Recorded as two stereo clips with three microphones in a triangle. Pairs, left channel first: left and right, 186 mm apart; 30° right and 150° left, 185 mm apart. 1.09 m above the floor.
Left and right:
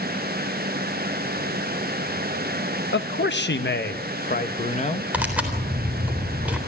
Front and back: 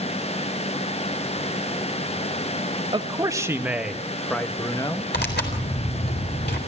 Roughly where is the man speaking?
Left.